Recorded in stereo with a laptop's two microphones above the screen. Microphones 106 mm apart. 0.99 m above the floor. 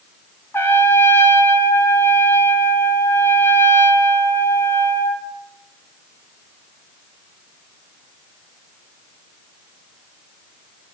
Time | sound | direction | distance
0.5 | a trumpet | 20° left (ahead or behind) | 1.3 m